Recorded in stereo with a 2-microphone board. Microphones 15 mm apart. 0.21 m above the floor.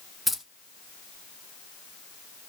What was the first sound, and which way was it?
Keys jangling, centre (ahead or behind).